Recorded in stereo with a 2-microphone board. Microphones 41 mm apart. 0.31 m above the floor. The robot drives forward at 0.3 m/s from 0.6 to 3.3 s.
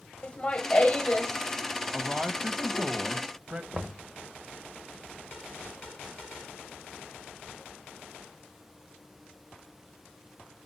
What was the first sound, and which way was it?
Laughter, 25° left (ahead or behind).